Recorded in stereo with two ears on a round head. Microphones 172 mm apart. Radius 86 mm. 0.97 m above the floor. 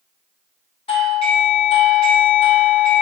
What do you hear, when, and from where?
0.9 s a doorbell: 30° left (ahead or behind), 0.7 m